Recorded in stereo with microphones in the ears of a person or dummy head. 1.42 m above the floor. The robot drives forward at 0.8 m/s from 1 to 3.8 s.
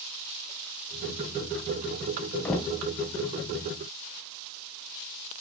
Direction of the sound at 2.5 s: 10° left (ahead or behind).